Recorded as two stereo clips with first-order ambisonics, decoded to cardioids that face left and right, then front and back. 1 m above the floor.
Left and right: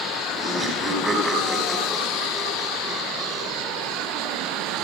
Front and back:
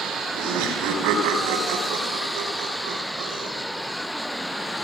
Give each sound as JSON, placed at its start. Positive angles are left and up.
{"t": 0.3, "sound": "laughter", "azimuth_deg": -170, "distance_m": 5.5}